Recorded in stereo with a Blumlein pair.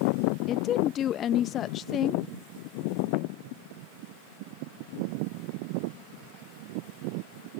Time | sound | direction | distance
0.5 | a woman speaking | 30° left | ?